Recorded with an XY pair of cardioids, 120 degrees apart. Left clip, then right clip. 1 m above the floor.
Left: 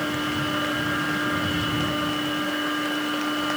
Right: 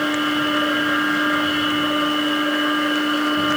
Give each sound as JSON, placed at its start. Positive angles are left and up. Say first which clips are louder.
{"t": 0.0, "sound": "a machine running", "louder": "right 6 dB", "azimuth_deg": -30}